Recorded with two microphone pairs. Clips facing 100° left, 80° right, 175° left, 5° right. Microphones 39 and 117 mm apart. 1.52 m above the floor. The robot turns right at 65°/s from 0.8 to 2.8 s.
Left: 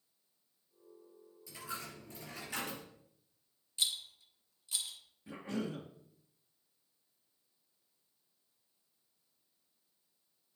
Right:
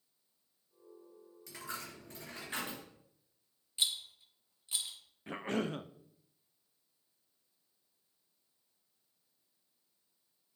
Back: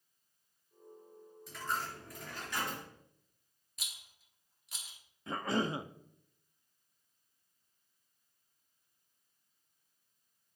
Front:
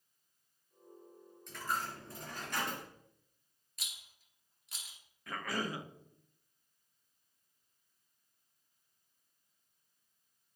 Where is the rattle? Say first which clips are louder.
Right 1 dB, back 1 dB; 100° right, 1.1 m.